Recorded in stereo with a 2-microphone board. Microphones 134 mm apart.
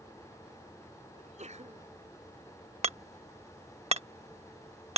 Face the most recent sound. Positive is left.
turn(degrees=-55)  # may be behind; listen again after turning